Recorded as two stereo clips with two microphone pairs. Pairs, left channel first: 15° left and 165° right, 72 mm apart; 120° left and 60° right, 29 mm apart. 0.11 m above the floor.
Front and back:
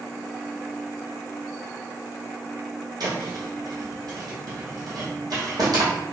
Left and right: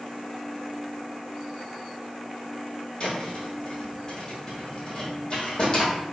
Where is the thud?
Straight behind, 1.7 m.